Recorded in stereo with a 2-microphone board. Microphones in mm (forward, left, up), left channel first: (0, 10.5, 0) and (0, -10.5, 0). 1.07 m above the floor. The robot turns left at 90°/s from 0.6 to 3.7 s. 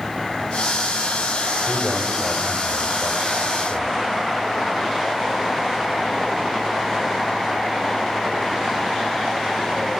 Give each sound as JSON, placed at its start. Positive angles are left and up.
{"t": 1.6, "sound": "a man speaking", "azimuth_deg": -150, "distance_m": 4.5}